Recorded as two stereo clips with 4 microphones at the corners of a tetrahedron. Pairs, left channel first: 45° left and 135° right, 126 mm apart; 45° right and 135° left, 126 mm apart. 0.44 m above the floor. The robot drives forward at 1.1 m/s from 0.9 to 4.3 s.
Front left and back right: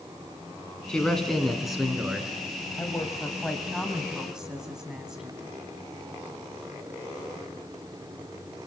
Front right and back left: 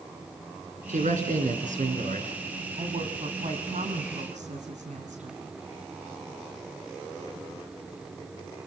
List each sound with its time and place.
0.9 s a man speaking: 130° left, 4 m; by 2.3 s 140° left, 5 m
2.8 s a woman speaking: 110° left, 2.5 m; by 5.4 s 140° left, 3.5 m